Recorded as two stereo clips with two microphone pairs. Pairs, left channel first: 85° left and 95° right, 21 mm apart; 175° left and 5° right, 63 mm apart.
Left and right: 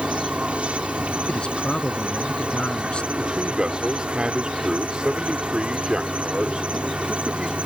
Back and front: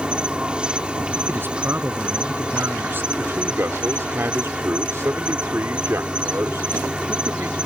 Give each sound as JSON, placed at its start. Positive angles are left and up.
{"t": 0.0, "sound": "an insect", "azimuth_deg": -80}
{"t": 1.3, "sound": "a man speaking", "azimuth_deg": 50}
{"t": 3.2, "sound": "a man speaking", "azimuth_deg": -50}